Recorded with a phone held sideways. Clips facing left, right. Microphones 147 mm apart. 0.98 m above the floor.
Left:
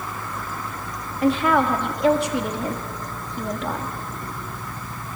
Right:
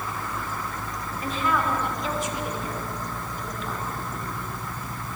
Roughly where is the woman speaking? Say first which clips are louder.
Left 8 dB; left.